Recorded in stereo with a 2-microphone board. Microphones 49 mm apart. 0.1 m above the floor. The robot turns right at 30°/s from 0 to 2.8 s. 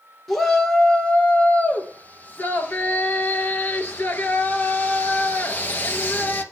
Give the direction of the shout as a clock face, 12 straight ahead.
12 o'clock.